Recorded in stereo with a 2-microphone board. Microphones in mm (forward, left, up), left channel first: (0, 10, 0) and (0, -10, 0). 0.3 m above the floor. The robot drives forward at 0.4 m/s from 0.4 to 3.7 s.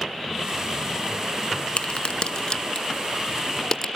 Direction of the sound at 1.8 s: 65° left (ahead or behind).